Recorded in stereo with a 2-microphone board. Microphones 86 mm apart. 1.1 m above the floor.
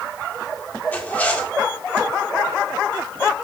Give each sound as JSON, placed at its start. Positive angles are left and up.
{"t": 0.9, "sound": "a zipper", "side_deg": 20, "distance_m": 1.4}